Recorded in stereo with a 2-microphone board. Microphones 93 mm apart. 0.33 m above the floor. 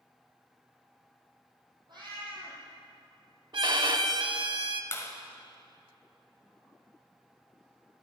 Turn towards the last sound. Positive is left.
turn(degrees=30)  # may be behind; listen again after turning